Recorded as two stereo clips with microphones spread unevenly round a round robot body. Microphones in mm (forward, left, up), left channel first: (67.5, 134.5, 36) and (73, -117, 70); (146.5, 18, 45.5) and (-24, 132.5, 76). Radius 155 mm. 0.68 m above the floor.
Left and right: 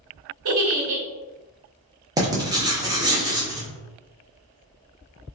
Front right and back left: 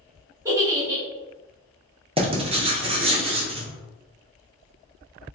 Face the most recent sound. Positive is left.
turn(degrees=-165)